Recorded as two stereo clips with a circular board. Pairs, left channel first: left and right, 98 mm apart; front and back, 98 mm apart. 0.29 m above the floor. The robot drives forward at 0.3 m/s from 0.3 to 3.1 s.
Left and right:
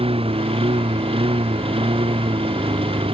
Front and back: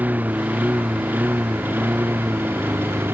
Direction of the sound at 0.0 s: 105° right.